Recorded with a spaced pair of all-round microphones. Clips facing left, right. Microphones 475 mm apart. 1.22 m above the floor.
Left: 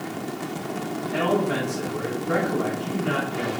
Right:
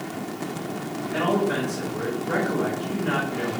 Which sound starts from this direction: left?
A man speaking, at 1.1 s.